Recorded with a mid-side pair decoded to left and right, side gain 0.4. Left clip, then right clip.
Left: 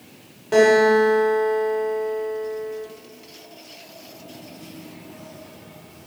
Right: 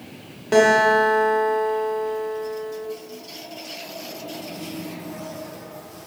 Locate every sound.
0.5 s a guitar: 40° right, 0.9 m